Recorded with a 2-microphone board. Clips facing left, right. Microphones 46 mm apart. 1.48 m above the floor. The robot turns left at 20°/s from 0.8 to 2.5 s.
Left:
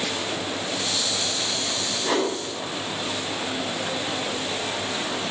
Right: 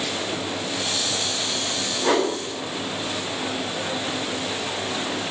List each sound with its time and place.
2.0 s a whoosh: 50° right (ahead or behind), 0.6 m; by 2.3 s 55° right (ahead or behind), 0.6 m